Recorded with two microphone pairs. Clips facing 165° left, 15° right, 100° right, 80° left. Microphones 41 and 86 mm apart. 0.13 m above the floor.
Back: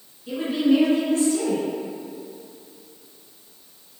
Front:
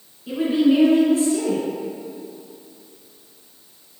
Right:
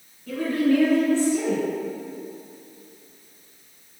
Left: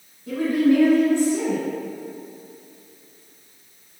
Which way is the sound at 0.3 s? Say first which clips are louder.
Front 3 dB, left 3 dB; 40° left.